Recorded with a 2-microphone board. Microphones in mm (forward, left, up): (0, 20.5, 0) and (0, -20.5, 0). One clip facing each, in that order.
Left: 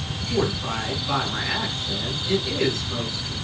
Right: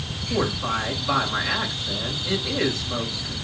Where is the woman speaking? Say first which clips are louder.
Right 1 dB; 25° right (ahead or behind), 7.5 m.